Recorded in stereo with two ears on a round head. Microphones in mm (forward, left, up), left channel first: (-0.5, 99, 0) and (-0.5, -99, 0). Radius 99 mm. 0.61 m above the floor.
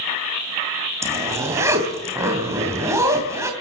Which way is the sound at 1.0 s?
15° right (ahead or behind).